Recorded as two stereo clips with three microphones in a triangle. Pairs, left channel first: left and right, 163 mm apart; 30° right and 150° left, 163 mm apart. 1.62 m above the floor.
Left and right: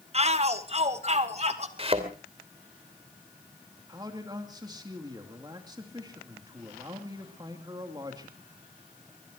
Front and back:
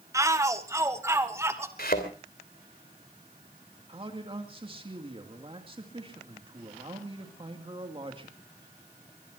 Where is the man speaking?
155° right, 2.5 m.